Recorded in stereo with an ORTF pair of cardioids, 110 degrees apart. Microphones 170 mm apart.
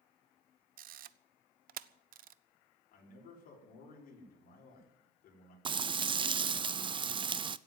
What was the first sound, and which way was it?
A camera shutter, 55° right.